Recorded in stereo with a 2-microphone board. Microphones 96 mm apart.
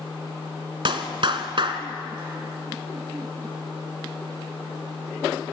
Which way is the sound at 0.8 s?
55° right (ahead or behind).